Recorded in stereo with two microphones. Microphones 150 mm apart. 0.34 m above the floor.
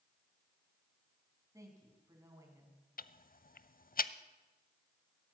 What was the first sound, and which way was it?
A woman speaking, 20° right (ahead or behind).